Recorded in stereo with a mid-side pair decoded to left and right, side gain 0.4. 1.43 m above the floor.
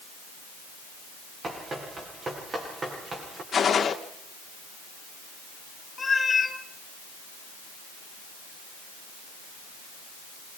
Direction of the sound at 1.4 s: 45° right.